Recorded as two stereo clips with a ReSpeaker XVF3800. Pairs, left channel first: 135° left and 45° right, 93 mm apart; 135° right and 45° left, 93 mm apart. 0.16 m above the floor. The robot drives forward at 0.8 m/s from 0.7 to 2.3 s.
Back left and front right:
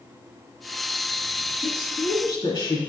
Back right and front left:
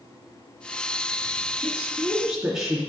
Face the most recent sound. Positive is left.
turn(degrees=130)